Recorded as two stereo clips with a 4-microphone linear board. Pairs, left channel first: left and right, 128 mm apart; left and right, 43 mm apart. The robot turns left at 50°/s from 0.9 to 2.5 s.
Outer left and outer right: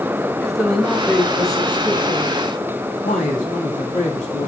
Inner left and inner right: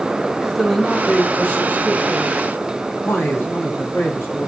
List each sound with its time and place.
0.4 s a man speaking: straight behind, 3.5 m; by 4.5 s 100° left, 3.5 m